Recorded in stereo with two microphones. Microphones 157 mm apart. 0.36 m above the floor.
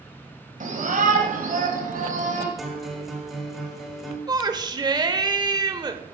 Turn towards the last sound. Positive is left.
turn(degrees=-25)  # may be behind; listen again after turning